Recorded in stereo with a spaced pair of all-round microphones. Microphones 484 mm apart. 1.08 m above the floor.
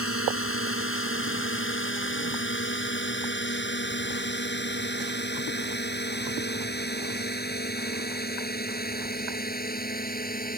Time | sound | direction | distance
0.0 | a drone | 25° left (ahead or behind) | ?